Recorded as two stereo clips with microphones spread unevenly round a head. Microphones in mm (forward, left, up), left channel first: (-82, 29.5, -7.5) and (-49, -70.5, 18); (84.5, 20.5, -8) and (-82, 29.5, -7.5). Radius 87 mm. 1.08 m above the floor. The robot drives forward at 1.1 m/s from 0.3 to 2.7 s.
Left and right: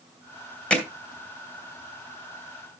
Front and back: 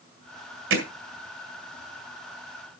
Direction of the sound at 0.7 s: 170° right.